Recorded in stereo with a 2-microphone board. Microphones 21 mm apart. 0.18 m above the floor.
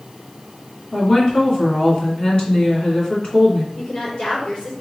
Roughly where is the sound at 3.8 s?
Left.